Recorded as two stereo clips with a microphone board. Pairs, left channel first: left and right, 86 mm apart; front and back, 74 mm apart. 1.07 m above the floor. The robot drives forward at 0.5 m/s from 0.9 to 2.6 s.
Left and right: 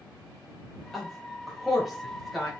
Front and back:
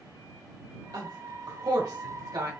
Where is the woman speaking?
Straight behind, 1.7 m.